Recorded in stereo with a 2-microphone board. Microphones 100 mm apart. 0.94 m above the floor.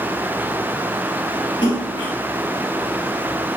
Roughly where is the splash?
Left.